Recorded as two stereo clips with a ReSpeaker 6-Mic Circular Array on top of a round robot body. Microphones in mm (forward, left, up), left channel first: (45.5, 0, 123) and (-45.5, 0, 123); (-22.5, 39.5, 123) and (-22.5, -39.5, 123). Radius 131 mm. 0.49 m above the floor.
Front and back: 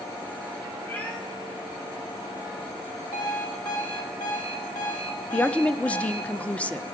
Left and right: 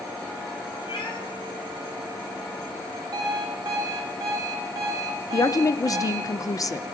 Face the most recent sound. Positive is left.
turn(degrees=70)